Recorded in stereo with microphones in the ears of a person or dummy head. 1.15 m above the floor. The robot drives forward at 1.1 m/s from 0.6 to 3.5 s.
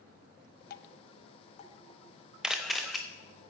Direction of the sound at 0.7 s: 60° left (ahead or behind).